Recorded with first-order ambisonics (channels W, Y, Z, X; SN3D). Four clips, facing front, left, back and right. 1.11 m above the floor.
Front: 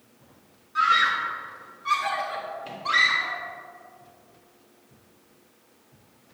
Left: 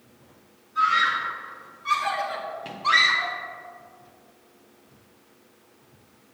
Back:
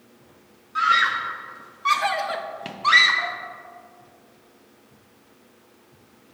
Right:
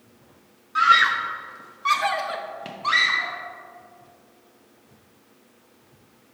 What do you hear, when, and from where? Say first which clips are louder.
0.8 s a scream: right 4 dB, back 1 dB; 105° right, 1.3 m; by 3.4 s 175° left, 1.1 m